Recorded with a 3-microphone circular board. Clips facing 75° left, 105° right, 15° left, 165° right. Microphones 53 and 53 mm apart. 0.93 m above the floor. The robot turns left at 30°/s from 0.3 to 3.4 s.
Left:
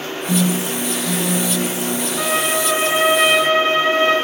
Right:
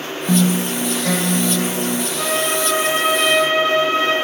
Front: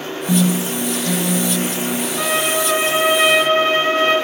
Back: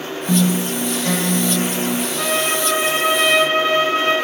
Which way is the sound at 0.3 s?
90° right.